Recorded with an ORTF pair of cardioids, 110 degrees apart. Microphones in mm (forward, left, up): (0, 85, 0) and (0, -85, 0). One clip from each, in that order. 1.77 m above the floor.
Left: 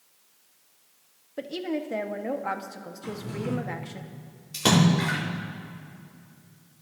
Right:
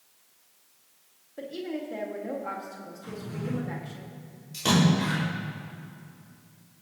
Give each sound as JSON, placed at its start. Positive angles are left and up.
{"t": 1.4, "sound": "a woman speaking", "azimuth_deg": 40, "distance_m": 1.5}
{"t": 3.0, "sound": "a drawer", "azimuth_deg": 50, "distance_m": 3.5}
{"t": 4.5, "sound": "a splash", "azimuth_deg": 45, "distance_m": 4.5}